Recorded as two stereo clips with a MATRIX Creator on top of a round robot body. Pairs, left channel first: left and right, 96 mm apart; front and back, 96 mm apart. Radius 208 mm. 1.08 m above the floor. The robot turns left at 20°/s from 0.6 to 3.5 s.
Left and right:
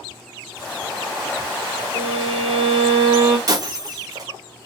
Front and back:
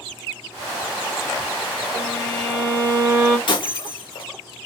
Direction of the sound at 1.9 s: 70° right.